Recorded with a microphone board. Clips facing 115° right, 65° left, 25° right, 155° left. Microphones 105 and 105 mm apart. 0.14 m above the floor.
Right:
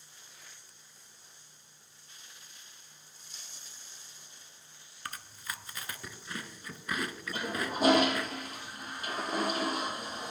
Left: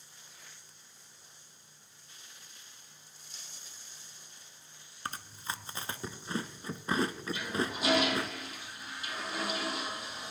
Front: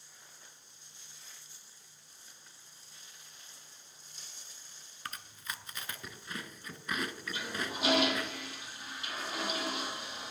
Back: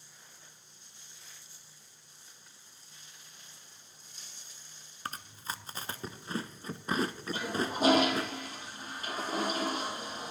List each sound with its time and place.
5.0 s chewing: 115° left, 0.6 m
7.3 s a toilet flushing: 155° right, 2 m